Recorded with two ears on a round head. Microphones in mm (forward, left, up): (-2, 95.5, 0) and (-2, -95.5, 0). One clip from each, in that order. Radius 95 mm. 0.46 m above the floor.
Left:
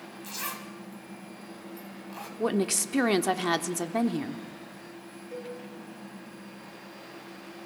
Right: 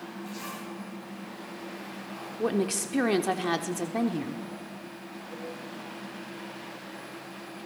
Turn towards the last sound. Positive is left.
turn(degrees=75)  # may be behind; listen again after turning